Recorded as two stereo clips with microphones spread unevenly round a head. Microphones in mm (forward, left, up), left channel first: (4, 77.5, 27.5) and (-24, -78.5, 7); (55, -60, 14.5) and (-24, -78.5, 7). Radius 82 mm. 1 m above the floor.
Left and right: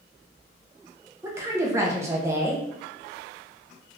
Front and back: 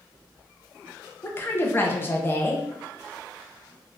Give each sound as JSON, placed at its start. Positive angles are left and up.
{"t": 1.2, "sound": "a woman speaking", "azimuth_deg": -45, "distance_m": 0.6}